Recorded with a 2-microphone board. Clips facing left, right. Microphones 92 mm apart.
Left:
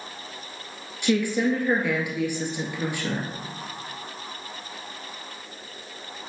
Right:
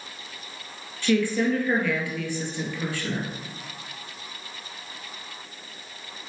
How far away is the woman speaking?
About 1.8 m.